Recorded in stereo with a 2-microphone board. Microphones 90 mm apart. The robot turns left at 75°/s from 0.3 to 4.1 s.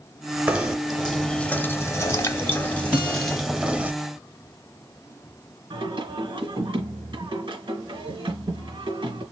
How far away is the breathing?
I don't hear breathing.